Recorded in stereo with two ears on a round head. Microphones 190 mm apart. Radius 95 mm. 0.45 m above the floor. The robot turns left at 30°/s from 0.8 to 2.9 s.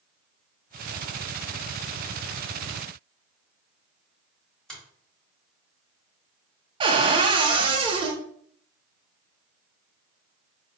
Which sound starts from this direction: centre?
A finger snap, at 4.7 s.